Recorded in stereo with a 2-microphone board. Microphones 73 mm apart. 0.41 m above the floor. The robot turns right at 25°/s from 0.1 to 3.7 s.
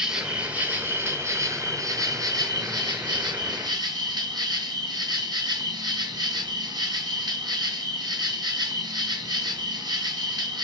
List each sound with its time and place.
0.0 s an insect: 170° right, 2.5 m; by 10.7 s 80° right, 2.5 m